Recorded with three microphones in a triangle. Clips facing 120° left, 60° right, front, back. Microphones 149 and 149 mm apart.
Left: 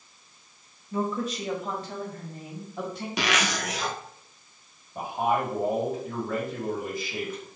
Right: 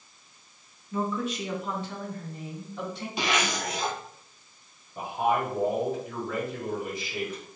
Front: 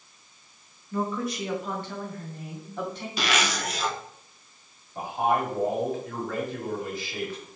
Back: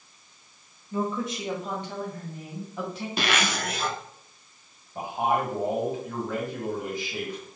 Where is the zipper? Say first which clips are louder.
Even, even; 140° left, 0.7 m.